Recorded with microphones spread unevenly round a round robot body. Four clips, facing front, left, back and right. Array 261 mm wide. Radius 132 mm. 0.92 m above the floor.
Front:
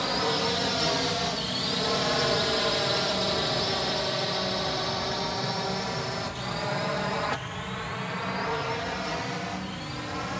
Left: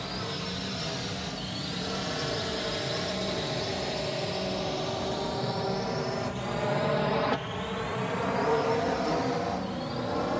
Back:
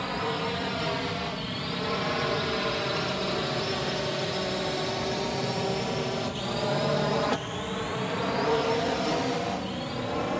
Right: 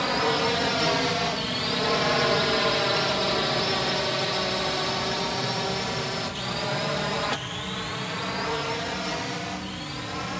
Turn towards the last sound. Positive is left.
turn(degrees=135)